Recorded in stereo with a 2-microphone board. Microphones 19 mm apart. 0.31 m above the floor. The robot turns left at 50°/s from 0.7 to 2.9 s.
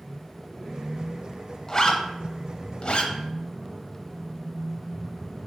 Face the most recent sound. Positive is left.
turn(degrees=55)  # may be behind; listen again after turning